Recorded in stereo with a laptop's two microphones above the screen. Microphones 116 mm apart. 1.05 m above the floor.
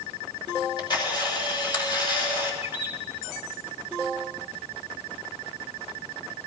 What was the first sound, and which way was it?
A camera shutter, 40° left (ahead or behind).